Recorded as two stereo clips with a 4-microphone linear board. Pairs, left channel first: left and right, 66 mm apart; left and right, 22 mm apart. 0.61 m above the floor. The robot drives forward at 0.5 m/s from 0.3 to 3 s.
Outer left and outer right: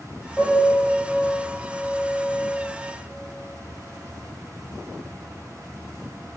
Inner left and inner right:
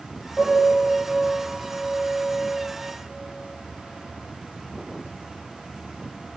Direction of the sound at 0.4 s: 20° left (ahead or behind).